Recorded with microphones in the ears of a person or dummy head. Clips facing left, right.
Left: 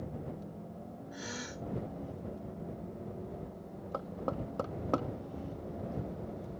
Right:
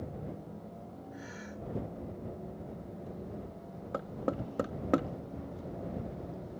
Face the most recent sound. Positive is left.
turn(degrees=-25)  # may be behind; listen again after turning